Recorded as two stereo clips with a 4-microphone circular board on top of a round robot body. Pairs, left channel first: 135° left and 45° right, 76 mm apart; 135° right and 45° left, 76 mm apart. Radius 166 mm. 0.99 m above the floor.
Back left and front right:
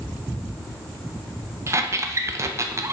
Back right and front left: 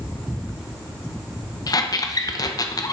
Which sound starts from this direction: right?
A squeak, at 1.7 s.